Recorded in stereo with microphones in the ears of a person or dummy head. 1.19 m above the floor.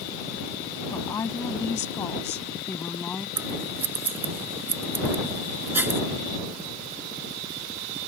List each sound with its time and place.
0.9 s a woman speaking: 15° left (ahead or behind); by 3.3 s 10° left (ahead or behind)
3.4 s scissors: 10° right (ahead or behind)